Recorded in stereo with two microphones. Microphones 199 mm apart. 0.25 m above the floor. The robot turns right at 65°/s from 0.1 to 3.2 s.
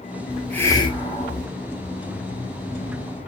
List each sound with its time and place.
0.3 s a hiss: 5° right, 0.7 m; by 1.5 s 75° left, 0.7 m